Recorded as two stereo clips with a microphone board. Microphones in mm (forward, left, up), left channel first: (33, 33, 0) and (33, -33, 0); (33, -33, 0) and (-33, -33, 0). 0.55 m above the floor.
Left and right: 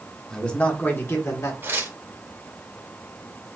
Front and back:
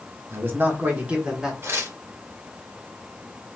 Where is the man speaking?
165° left, 1.6 m; by 1.5 s 105° left, 1.9 m.